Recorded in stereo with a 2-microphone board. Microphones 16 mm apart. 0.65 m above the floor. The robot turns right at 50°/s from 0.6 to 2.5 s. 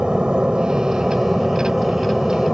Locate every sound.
0.0 s an aircraft: 75° right; by 2.5 s 20° left